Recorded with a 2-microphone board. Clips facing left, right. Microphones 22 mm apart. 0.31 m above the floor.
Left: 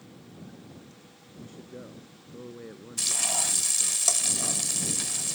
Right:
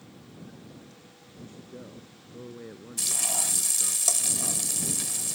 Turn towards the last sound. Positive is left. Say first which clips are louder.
# left 1 dB
turn(degrees=15)  # may be behind; listen again after turning